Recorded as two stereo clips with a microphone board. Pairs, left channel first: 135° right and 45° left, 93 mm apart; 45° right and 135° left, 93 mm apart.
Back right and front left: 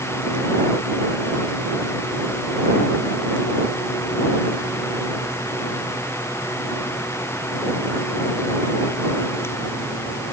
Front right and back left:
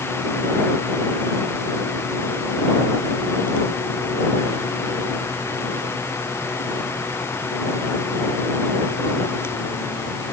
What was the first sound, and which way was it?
Only background noise.